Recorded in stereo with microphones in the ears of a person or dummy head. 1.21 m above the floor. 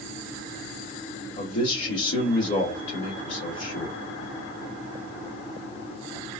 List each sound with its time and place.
1.4 s a man speaking: 70° left (ahead or behind), 1.9 m